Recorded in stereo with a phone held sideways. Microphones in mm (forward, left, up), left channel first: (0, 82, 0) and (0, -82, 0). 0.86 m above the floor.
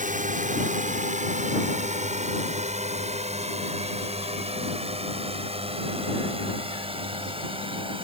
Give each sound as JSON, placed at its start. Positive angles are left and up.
{"t": 0.0, "sound": "a drone", "side_deg": -50}